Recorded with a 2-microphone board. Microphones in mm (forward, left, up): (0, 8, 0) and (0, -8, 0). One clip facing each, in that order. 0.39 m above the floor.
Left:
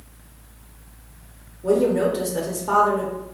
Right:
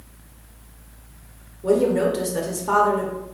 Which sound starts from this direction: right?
A woman speaking, at 1.6 s.